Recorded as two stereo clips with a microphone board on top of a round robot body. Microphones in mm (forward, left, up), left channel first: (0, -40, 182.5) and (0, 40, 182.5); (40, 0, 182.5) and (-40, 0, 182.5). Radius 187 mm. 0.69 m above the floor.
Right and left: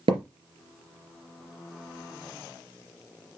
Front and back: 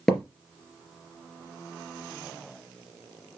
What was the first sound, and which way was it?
A thud, 85° left.